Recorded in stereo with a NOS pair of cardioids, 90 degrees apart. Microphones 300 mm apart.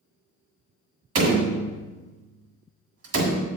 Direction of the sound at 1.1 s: 55° right.